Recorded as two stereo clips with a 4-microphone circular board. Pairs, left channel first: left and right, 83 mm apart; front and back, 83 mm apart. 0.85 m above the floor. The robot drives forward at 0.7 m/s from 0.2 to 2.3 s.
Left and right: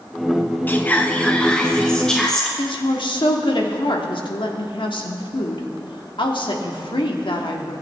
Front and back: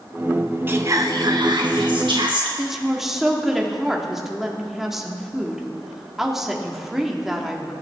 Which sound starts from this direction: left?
A woman speaking, at 2.6 s.